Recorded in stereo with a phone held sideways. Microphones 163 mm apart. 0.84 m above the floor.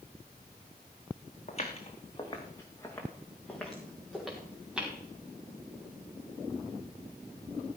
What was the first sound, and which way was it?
Footsteps, 40° left (ahead or behind).